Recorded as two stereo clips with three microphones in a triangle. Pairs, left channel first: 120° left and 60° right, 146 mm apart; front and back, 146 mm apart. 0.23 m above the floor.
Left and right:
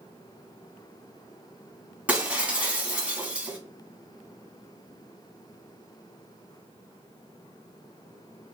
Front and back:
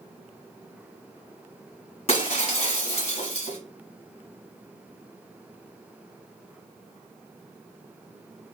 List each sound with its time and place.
2.1 s breaking glass: 20° left, 1.3 m